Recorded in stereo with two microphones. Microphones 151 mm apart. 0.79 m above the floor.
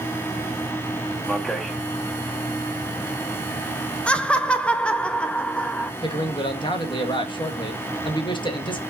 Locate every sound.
1.3 s a man speaking: 5° left (ahead or behind), 1.2 m
4.1 s laughter: 5° left (ahead or behind), 0.5 m
6.0 s a man speaking: 30° left (ahead or behind), 1.2 m